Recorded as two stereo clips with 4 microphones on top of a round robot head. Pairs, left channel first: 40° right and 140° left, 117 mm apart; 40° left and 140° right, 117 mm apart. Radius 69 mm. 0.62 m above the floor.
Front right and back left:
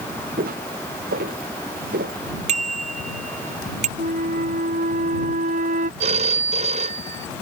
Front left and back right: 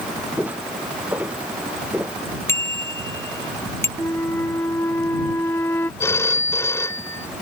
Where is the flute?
110° left.